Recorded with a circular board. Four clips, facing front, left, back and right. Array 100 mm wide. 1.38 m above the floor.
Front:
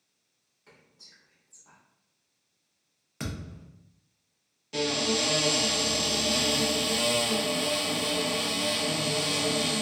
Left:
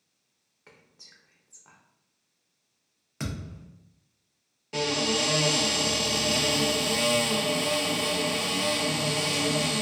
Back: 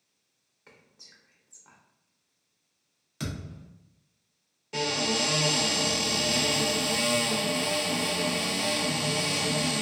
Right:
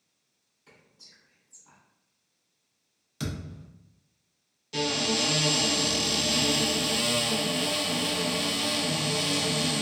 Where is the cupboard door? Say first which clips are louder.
Left 1 dB, front 1 dB; 115° left, 0.9 m.